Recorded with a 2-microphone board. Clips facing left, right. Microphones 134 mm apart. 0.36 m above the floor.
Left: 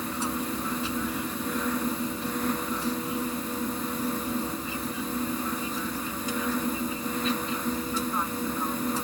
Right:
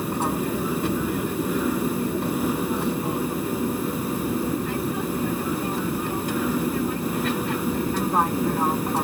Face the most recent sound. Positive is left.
turn(degrees=-60)  # may be behind; listen again after turning